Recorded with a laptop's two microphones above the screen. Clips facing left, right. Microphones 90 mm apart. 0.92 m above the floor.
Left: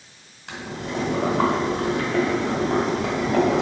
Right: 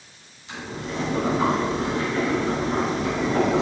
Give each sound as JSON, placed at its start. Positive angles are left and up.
{"t": 0.5, "sound": "boiling", "side_deg": 85, "distance_m": 2.5}